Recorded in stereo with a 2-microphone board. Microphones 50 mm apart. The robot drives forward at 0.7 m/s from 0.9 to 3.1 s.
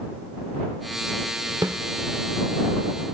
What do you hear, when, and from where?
1.6 s a snare drum: 75° right (ahead or behind), 0.8 m; by 1.8 s 80° right, 0.8 m